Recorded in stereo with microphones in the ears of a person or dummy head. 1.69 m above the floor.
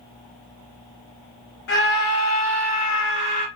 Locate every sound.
1.7 s a scream: 65° left (ahead or behind), 1.0 m